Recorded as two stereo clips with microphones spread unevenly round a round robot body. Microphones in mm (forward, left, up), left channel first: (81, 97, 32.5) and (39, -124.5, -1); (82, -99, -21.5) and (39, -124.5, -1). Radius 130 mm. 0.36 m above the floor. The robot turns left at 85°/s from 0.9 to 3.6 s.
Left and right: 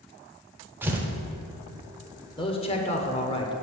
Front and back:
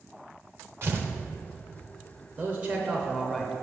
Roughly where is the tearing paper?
Behind right.